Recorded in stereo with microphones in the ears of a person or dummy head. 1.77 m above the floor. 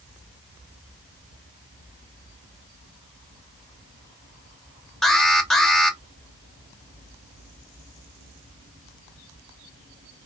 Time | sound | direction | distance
5.0 | an alarm | 5° left (ahead or behind) | 0.9 m